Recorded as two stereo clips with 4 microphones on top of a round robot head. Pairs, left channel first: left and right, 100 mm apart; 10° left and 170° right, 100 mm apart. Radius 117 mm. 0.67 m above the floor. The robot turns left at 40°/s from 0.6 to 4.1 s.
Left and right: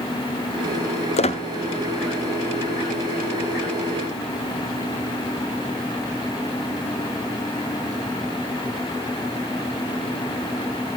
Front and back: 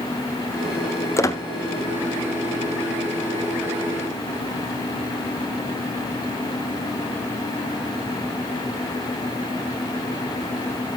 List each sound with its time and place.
1.2 s a squeak: 75° left, 0.8 m; by 1.4 s 65° left, 0.8 m